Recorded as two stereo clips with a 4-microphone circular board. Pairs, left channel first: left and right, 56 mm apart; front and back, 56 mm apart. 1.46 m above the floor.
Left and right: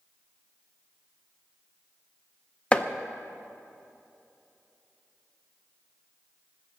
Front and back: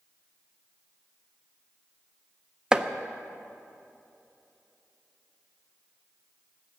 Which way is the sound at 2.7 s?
125° left.